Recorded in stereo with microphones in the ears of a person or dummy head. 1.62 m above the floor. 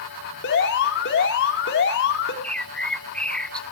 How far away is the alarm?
About 4 m.